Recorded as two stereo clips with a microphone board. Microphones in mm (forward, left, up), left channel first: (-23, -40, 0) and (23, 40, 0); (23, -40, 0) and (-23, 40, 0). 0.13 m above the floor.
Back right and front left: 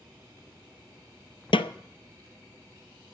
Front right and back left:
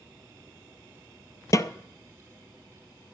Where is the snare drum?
110° right, 0.5 m.